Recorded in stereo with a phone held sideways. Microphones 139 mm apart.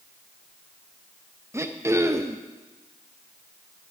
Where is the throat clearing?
20° right (ahead or behind), 0.5 m.